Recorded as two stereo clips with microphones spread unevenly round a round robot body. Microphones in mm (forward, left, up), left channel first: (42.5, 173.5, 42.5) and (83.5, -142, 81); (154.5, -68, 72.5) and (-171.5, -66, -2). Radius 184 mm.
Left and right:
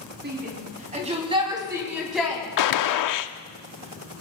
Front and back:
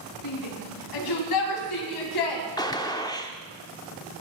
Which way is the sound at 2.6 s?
80° left.